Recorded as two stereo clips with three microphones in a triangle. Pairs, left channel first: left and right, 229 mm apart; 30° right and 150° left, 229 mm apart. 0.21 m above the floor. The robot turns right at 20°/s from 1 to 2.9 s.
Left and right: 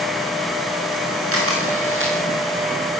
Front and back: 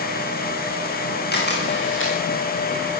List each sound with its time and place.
1.3 s a camera shutter: 75° right, 10 m; by 2.1 s 60° right, 10 m